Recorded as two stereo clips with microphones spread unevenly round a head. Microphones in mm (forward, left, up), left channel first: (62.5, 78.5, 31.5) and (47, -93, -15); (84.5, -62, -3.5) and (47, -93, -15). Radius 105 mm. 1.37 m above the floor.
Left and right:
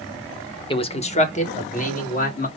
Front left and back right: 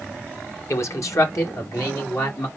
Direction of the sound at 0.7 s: 25° left.